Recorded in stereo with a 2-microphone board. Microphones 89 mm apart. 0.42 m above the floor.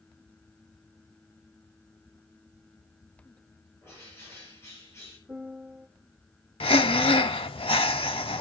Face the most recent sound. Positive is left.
turn(degrees=80)